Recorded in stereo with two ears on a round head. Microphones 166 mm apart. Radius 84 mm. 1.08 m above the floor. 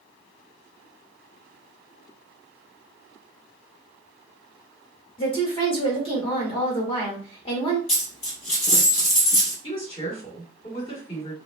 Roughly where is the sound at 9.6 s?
Left.